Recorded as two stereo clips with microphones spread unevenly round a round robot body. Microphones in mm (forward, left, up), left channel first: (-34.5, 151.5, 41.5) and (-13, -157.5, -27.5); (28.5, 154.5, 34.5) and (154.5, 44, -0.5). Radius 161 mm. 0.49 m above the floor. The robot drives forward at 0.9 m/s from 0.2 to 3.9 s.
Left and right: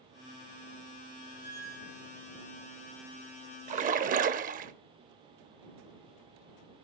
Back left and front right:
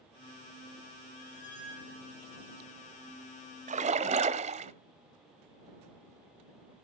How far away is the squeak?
About 7 m.